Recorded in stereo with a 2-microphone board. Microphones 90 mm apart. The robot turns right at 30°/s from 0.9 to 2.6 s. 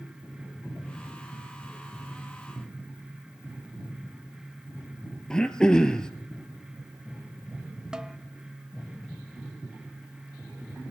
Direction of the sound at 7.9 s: 10° right (ahead or behind).